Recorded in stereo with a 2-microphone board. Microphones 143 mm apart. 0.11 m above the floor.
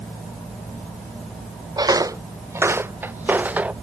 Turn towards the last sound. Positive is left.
turn(degrees=-10)  # may be behind; listen again after turning